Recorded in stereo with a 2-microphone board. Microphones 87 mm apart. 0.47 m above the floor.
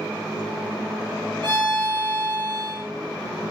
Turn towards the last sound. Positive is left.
turn(degrees=-65)  # may be behind; listen again after turning